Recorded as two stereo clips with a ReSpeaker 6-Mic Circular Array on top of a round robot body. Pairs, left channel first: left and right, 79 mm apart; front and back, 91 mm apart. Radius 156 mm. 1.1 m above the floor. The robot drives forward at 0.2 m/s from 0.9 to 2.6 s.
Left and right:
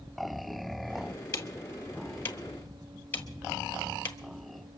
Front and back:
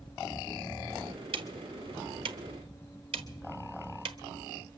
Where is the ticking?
150° left, 1.0 m; by 4.2 s 155° left, 1.3 m.